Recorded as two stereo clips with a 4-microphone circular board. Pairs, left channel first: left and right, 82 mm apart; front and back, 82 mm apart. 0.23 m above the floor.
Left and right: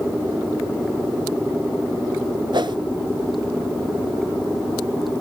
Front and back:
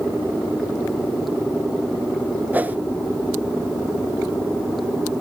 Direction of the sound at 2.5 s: 110° right.